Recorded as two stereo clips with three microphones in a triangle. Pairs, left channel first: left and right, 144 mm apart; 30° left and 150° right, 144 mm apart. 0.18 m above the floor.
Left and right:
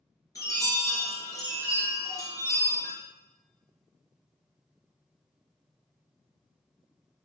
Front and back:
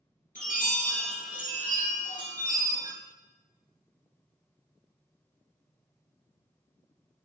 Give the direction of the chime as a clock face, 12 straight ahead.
11 o'clock.